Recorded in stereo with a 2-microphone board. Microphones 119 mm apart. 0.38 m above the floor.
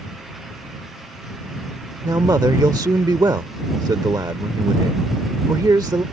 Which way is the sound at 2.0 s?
30° right (ahead or behind).